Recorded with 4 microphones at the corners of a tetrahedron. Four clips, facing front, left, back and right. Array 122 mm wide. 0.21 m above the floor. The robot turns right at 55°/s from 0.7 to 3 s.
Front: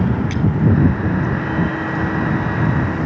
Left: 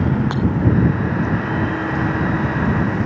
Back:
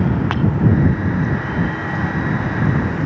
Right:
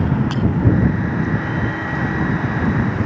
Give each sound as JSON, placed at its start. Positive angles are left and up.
{"t": 0.3, "sound": "breaking glass", "azimuth_deg": 165}